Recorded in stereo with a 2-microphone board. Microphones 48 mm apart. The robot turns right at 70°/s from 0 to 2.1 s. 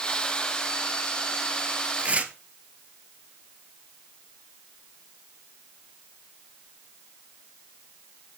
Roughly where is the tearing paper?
Right.